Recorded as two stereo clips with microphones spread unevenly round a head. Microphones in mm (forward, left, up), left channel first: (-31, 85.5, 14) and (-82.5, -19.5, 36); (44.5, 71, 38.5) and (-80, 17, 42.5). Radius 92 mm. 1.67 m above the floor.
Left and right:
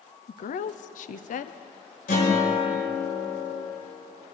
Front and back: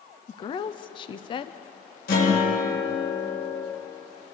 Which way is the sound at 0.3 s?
80° left.